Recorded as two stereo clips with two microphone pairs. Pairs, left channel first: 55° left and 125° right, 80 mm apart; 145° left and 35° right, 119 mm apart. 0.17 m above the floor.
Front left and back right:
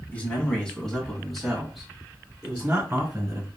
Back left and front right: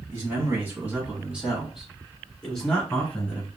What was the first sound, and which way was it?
A man speaking, 5° left.